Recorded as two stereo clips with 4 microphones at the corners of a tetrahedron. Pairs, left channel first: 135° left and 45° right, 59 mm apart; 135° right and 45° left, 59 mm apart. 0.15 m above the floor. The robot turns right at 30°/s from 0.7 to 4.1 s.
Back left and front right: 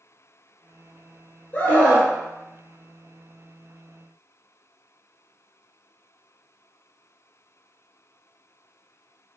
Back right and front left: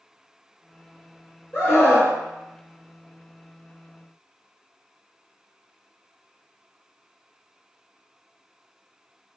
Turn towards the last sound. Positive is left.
turn(degrees=-95)